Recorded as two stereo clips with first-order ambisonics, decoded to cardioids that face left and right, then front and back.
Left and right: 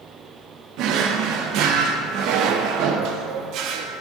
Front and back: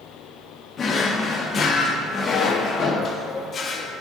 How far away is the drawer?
About 0.6 m.